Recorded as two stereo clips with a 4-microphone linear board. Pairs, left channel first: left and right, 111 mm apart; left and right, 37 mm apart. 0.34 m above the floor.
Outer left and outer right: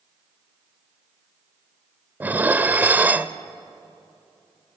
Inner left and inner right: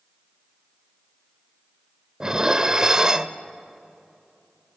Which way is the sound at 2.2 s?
20° right (ahead or behind).